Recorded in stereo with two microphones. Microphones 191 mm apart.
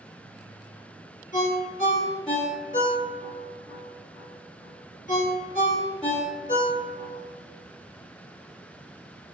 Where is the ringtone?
40° left (ahead or behind), 1.6 m.